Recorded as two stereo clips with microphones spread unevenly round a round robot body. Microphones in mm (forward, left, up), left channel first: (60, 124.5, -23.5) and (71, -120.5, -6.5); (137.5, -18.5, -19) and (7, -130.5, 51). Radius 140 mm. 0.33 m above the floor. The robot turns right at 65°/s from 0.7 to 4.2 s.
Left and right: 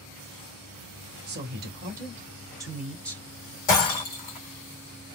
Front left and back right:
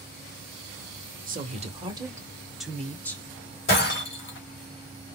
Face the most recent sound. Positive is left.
turn(degrees=125)